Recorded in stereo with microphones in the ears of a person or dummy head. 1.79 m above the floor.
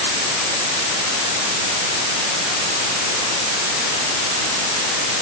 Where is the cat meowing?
I don't hear a cat meowing.